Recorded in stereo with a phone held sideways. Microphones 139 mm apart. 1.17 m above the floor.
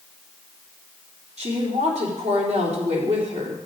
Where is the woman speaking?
55° right (ahead or behind), 3 m.